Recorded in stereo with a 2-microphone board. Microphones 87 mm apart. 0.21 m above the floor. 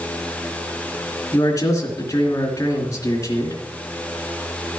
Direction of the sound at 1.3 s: 35° left (ahead or behind).